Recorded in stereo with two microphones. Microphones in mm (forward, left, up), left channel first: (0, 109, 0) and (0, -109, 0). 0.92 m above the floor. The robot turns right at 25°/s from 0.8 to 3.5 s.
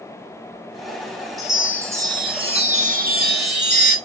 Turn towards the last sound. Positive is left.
turn(degrees=-125)